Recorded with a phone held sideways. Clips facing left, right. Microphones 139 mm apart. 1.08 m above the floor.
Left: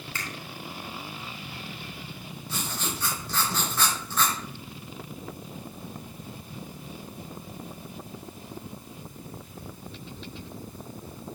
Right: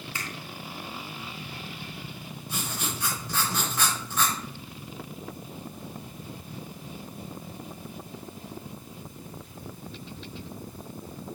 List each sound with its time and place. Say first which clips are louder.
0.1 s a finger snap: left 1 dB; 20° right (ahead or behind), 2 m
2.5 s writing: even; 15° right (ahead or behind), 3 m